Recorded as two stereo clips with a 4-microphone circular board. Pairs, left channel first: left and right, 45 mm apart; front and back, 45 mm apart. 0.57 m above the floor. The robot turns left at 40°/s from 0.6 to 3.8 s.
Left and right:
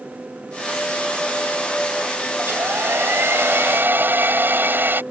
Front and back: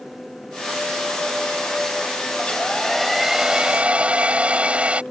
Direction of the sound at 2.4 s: 65° right.